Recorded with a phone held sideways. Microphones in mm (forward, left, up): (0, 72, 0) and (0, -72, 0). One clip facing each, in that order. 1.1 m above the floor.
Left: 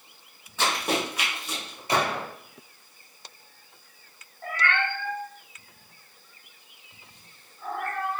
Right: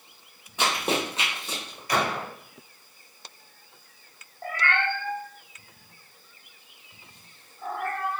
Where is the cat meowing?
40° right (ahead or behind), 1.2 m.